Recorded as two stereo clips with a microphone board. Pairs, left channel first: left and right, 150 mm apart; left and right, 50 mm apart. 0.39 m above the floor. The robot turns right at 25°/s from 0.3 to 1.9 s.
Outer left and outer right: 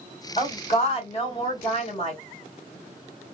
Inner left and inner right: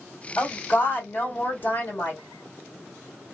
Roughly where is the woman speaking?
Ahead left.